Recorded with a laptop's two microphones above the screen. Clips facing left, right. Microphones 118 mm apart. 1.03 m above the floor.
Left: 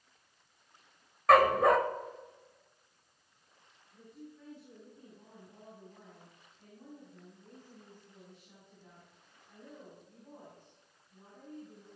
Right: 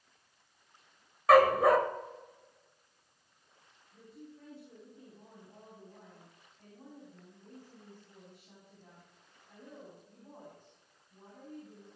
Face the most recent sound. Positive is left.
turn(degrees=-45)  # may be behind; listen again after turning